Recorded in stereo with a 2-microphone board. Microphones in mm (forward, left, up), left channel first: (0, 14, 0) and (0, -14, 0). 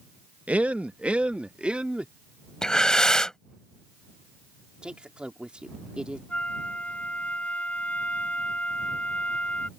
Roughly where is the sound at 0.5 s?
Right.